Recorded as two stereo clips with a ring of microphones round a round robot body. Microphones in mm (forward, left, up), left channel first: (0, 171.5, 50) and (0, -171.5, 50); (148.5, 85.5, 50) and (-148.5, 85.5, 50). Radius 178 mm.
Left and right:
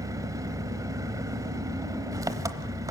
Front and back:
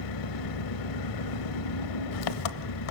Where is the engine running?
10° right, 0.9 m.